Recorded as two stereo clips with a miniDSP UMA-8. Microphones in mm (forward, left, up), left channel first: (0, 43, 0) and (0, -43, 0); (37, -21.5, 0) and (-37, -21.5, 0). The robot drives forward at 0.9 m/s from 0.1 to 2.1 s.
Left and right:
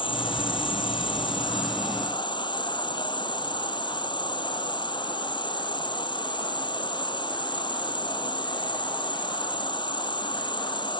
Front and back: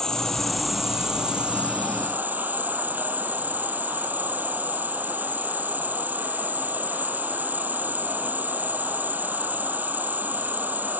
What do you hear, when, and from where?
0.0 s an insect: 80° left; by 11.0 s 115° left